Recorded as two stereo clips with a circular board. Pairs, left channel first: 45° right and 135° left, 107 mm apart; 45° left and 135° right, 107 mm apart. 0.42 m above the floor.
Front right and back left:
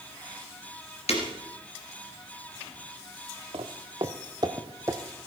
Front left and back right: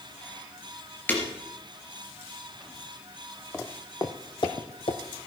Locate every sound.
1.1 s breaking glass: 30° right, 3 m
3.5 s footsteps: 115° left, 1.2 m; by 5.0 s 70° left, 1.3 m